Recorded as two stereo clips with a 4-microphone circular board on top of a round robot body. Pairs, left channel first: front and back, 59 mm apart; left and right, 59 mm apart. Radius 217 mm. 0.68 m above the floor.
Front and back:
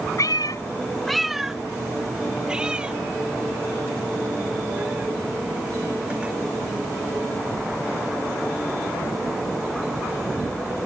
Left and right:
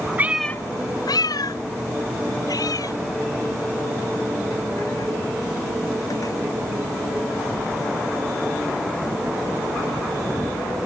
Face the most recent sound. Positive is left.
turn(degrees=110)